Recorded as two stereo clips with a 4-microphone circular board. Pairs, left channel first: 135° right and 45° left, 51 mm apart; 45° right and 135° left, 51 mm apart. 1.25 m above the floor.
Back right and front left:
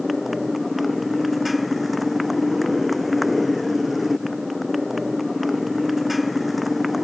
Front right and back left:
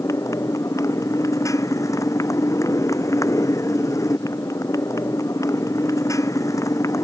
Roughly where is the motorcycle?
Ahead right.